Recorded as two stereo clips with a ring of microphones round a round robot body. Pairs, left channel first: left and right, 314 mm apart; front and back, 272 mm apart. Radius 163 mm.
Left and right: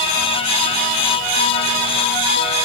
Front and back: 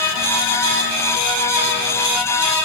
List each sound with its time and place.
Only background noise.